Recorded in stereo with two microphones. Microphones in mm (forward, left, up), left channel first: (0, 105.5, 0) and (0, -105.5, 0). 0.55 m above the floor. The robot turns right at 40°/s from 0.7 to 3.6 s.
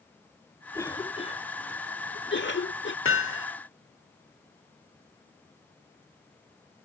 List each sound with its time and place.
0.7 s a cough: 15° left (ahead or behind); by 3.0 s 60° left (ahead or behind)
3.0 s hammering: 80° left; by 3.5 s 75° left (ahead or behind)